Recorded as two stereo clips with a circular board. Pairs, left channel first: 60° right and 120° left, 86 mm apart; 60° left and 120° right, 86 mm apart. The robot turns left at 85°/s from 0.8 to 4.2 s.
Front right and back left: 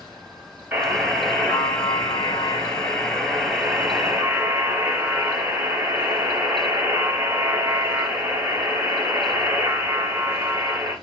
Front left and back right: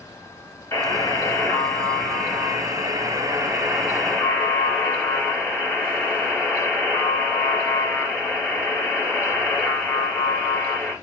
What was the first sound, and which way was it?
A buzzer, 70° left.